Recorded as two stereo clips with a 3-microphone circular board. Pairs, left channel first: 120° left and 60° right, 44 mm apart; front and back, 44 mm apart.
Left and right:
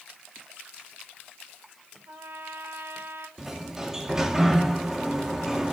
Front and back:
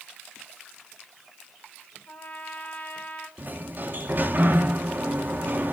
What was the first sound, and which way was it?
A trumpet, 45° right.